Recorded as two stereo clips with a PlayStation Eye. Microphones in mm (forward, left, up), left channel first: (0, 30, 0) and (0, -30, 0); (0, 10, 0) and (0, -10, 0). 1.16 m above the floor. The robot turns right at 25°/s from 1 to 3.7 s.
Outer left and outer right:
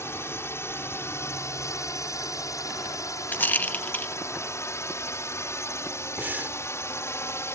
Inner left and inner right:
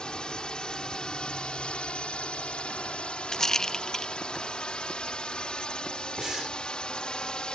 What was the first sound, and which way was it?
A drone, 45° left (ahead or behind).